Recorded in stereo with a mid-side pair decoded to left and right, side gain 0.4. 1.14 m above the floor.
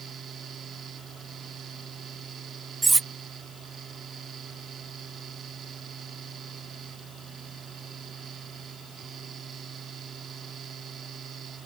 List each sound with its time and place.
0.0 s a fan: 60° right
2.8 s cutlery clinking: 30° right